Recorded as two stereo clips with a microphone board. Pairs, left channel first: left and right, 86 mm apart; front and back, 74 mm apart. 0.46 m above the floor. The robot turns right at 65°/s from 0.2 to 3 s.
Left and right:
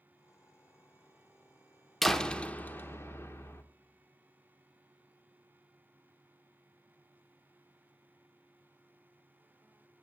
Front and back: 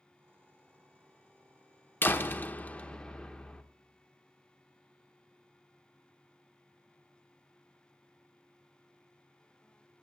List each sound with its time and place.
2.0 s a door slam: straight ahead, 0.7 m; by 3.6 s 65° left, 0.7 m